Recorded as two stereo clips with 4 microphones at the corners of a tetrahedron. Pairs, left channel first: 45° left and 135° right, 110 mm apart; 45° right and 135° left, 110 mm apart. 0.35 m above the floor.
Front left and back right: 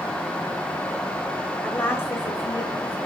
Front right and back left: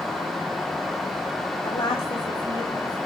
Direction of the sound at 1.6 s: 25° right.